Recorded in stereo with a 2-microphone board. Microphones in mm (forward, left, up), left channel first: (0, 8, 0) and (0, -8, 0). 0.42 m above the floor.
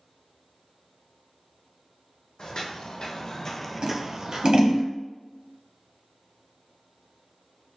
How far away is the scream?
I don't hear a scream.